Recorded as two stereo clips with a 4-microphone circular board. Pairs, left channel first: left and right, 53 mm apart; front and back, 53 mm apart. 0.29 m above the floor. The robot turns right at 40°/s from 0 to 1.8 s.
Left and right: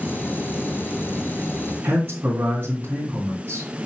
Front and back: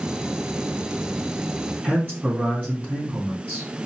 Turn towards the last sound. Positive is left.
turn(degrees=-130)